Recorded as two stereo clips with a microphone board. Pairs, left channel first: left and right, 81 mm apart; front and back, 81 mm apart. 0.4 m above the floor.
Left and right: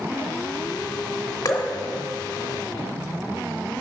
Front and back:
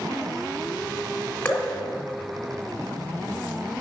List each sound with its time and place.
1.4 s dripping: 70° left, 1.0 m